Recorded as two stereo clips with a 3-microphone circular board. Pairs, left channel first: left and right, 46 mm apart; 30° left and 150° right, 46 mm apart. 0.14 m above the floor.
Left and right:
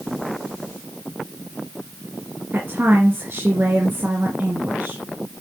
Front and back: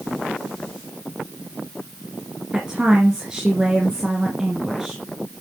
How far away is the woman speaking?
About 2 m.